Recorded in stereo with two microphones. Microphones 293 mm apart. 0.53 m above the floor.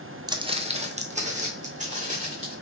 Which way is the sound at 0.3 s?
15° right (ahead or behind).